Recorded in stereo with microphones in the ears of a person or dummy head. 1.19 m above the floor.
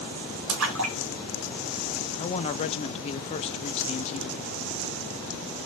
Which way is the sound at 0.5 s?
60° right (ahead or behind).